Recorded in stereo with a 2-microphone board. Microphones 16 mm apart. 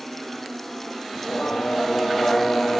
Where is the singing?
85° left.